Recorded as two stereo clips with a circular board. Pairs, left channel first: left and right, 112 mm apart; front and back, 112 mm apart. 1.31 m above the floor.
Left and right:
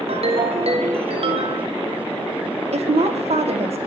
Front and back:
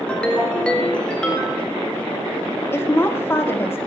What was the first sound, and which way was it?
A ringtone, 80° right.